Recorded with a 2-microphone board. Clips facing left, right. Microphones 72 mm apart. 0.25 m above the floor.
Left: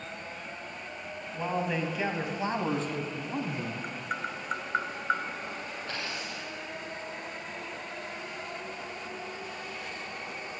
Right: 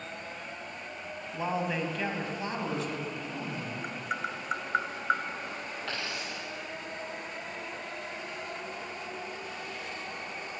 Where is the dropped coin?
80° right, 6 m.